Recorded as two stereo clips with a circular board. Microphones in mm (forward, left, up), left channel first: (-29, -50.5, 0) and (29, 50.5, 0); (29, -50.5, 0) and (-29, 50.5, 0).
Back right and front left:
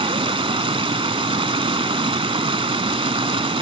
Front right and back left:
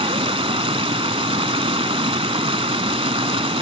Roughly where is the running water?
Left.